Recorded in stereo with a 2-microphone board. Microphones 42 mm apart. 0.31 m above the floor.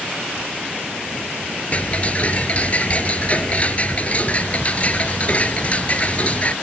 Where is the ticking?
35° left (ahead or behind).